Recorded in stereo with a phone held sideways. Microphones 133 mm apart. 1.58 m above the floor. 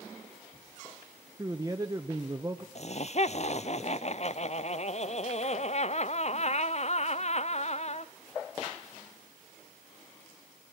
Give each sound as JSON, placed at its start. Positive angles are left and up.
{"t": 1.4, "sound": "a man speaking", "side_deg": -25, "distance_m": 1.0}
{"t": 2.8, "sound": "laughter", "side_deg": 55, "distance_m": 0.7}